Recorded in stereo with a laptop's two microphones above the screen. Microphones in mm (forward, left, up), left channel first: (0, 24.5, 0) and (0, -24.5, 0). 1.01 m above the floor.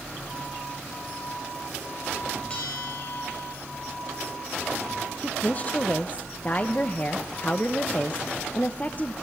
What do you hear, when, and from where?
2.5 s a bell: 25° left (ahead or behind), 7.5 m
5.2 s a woman speaking: 35° left (ahead or behind), 0.9 m